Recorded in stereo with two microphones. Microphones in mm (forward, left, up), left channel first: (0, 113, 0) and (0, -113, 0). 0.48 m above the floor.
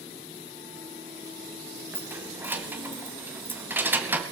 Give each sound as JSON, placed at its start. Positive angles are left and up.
{"t": 1.9, "sound": "keys jangling", "side_deg": -10, "distance_m": 2.5}